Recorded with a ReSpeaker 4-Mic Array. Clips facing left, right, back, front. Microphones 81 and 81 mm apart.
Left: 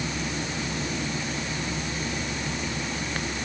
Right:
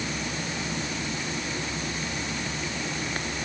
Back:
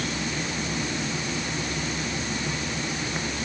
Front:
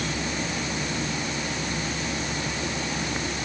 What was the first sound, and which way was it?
Only background noise.